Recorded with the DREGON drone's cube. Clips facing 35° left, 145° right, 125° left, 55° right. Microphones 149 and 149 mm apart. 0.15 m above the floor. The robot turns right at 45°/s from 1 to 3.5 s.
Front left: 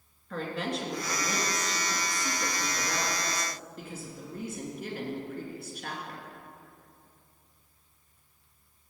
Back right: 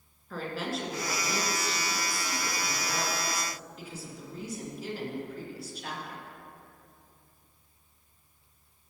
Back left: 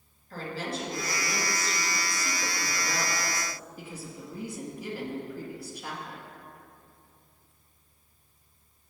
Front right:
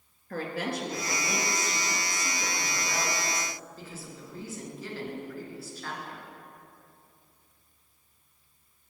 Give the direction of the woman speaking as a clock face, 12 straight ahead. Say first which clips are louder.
Front left 1 dB, front right 3 dB; 2 o'clock.